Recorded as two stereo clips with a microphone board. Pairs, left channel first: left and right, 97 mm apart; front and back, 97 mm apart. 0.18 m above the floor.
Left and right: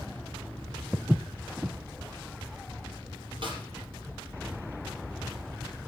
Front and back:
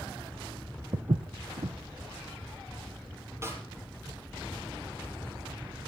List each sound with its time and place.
0.9 s footsteps: 170° right, 0.6 m
3.4 s a snare drum: 120° right, 5.5 m